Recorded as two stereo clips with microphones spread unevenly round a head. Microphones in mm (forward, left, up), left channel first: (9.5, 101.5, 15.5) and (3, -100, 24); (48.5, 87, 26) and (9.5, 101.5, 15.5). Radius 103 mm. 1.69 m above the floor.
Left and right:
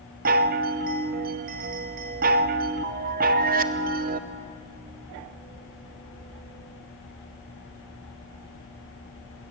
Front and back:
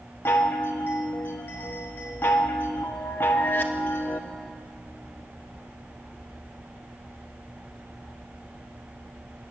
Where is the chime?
50° right, 0.8 m.